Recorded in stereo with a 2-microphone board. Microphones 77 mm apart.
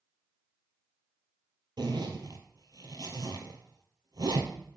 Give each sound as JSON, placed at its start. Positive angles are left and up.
{"t": 1.8, "sound": "a zipper", "side_deg": -65, "distance_m": 1.4}